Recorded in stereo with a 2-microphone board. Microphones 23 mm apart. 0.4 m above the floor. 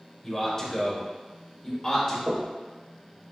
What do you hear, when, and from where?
0.2 s a man speaking: 20° left (ahead or behind), 1.3 m; by 2.2 s 30° left (ahead or behind), 1.0 m
2.3 s knocking: 55° right (ahead or behind), 0.8 m